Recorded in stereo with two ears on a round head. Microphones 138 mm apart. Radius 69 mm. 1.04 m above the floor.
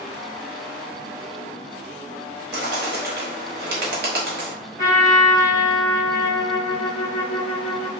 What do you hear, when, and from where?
2.5 s a bird: 70° right (ahead or behind), 1.1 m
4.8 s a trumpet: 55° right (ahead or behind), 1.3 m